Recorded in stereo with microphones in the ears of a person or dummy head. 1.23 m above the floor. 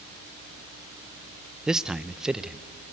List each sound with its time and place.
1.7 s a man speaking: 5° right (ahead or behind), 0.5 m